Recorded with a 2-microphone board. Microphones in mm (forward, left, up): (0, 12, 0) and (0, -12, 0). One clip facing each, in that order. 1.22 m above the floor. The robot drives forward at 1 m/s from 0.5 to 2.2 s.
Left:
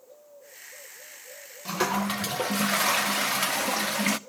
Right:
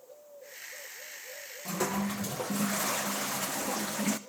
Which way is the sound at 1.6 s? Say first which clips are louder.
Left 5 dB; 45° left (ahead or behind).